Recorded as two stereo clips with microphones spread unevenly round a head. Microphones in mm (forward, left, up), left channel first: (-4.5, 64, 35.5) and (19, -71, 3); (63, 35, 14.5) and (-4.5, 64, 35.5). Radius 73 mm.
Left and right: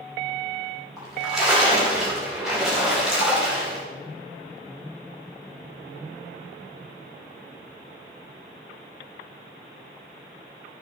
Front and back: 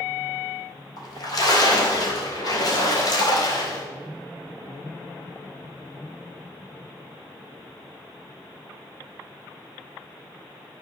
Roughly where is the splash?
Ahead.